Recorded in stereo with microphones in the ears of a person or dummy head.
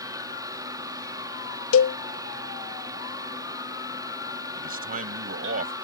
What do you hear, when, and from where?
0.0 s a fan: 15° right (ahead or behind)
1.7 s a cowbell: 80° left
4.6 s a man speaking: 40° right (ahead or behind)